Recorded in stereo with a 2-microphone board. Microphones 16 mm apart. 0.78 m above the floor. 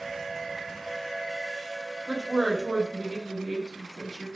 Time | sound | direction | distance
2.1 | a woman speaking | 60° right (ahead or behind) | 1.1 m